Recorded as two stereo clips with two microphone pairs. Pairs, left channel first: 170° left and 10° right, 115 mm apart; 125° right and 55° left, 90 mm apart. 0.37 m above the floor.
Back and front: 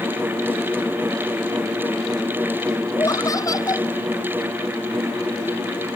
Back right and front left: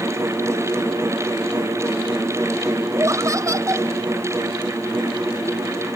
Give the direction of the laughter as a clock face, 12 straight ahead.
8 o'clock.